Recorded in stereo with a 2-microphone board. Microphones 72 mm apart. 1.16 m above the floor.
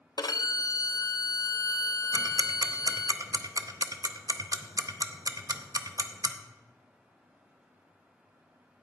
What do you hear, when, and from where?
0.2 s a violin: 75° left (ahead or behind), 0.5 m
2.1 s ticking: 60° right (ahead or behind), 0.6 m